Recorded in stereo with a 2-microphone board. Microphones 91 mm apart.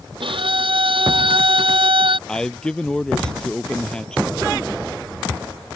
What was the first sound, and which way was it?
A violin, 70° right (ahead or behind).